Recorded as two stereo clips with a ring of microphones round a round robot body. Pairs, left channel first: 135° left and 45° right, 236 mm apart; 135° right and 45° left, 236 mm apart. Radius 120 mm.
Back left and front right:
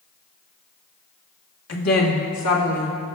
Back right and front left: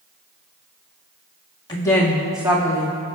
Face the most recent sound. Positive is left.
turn(degrees=115)